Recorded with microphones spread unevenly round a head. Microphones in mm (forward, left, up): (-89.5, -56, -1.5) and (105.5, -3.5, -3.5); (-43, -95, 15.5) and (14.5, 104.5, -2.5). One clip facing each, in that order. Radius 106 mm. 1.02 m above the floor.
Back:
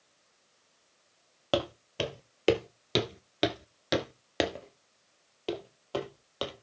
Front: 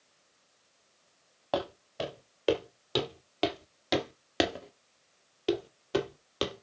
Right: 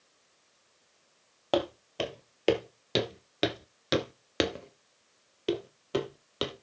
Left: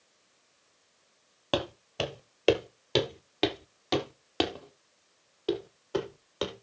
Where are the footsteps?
155° left, 1.8 m; by 6.6 s 50° right, 2.5 m.